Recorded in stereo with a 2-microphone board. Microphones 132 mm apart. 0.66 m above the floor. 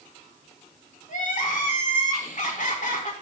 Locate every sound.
1.1 s crying: 65° left (ahead or behind), 1.2 m